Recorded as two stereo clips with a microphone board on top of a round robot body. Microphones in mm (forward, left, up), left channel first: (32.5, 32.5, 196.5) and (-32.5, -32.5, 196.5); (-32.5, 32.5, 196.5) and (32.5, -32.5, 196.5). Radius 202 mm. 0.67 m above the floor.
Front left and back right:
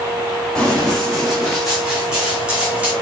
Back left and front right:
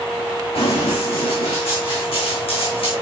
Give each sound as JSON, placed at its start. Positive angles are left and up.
{"t": 0.6, "sound": "running footsteps", "azimuth_deg": 130, "distance_m": 3.0}